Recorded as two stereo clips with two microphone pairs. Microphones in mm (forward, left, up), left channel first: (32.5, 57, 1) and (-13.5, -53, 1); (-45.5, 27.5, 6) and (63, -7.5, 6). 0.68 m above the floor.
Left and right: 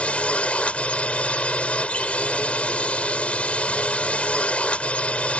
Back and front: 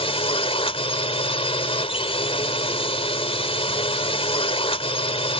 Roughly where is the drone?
Behind left.